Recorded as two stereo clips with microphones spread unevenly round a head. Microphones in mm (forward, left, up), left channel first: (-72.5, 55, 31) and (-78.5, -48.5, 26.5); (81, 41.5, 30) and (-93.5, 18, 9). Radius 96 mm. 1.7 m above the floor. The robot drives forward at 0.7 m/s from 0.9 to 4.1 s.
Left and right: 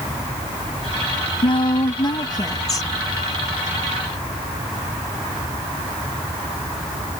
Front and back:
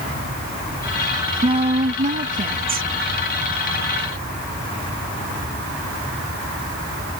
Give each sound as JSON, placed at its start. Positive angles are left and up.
{"t": 1.4, "sound": "a woman speaking", "azimuth_deg": 125}